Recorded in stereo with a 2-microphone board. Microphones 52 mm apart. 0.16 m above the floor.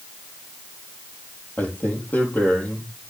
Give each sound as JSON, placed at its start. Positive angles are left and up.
{"t": 1.6, "sound": "a man speaking", "side_deg": 35, "distance_m": 4.5}